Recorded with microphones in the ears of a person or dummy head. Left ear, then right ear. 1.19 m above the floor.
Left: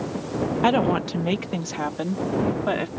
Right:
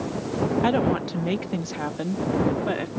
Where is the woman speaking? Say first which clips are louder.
Left 5 dB; 35° left (ahead or behind); by 2.9 s 30° left (ahead or behind).